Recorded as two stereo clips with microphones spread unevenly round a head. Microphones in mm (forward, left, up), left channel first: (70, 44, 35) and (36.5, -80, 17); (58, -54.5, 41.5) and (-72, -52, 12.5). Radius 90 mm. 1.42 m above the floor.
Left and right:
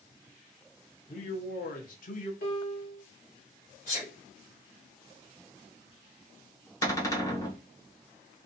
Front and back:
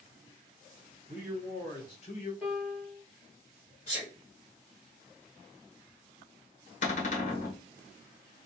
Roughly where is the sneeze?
Ahead left.